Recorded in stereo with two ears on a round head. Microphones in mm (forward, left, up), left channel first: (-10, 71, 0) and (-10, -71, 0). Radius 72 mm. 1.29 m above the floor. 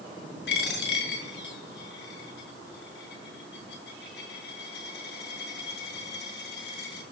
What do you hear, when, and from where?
0.5 s a dropped coin: 75° left (ahead or behind), 5.5 m